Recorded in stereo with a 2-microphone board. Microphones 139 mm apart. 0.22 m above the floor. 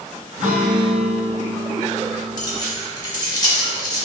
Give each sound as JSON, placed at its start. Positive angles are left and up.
{"t": 0.4, "sound": "a guitar", "side_deg": -70, "distance_m": 1.0}
{"t": 2.4, "sound": "keys jangling", "side_deg": 30, "distance_m": 1.0}